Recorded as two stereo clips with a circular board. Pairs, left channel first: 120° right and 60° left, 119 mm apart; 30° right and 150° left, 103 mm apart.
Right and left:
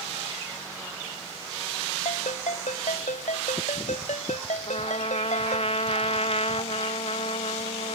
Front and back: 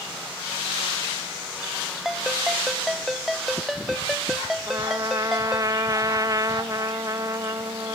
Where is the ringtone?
120° right.